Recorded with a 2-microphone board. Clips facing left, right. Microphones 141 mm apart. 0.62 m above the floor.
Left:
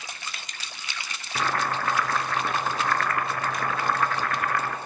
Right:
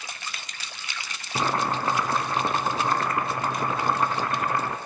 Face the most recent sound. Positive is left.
turn(degrees=-25)  # may be behind; listen again after turning